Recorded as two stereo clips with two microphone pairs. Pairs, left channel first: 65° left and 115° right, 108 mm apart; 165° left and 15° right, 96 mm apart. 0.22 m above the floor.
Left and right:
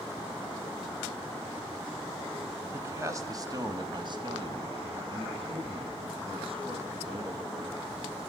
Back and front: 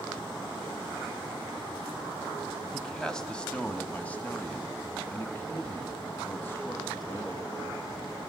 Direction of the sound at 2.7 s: 110° right.